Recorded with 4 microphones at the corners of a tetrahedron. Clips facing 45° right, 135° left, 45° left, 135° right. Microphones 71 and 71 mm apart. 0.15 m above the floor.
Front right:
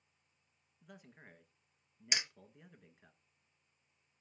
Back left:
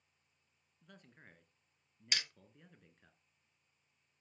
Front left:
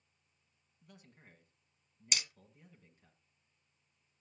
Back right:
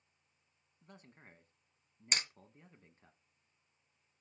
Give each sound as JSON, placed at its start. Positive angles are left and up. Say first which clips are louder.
{"t": 0.8, "sound": "a man speaking", "louder": "front right 3 dB, back right 2 dB", "azimuth_deg": -120, "distance_m": 1.4}
{"t": 2.1, "sound": "hammering", "louder": "front right 2 dB, back right 2 dB", "azimuth_deg": -105, "distance_m": 0.5}